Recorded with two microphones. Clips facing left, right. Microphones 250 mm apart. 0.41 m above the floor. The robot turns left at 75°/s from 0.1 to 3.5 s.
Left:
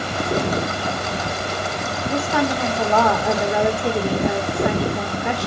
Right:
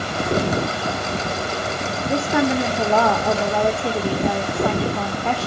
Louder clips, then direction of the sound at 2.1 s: Right 2 dB; 30° right (ahead or behind).